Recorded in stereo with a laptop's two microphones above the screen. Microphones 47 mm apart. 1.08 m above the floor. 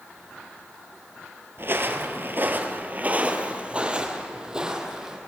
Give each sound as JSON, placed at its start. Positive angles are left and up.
{"t": 1.6, "sound": "footsteps", "side_deg": -50, "distance_m": 1.6}